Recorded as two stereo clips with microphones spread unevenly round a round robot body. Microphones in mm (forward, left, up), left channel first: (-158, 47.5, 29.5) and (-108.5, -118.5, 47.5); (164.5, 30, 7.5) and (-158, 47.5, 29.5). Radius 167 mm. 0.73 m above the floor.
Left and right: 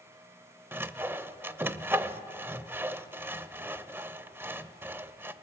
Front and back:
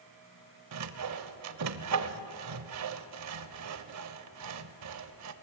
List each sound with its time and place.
0.7 s sawing: 150° right, 0.8 m